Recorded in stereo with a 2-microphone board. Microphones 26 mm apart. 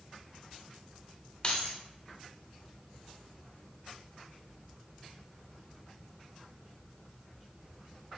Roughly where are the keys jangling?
Left.